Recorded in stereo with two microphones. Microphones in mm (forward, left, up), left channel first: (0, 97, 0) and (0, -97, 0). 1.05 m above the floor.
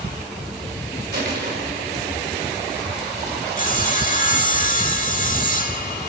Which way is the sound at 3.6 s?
45° left (ahead or behind).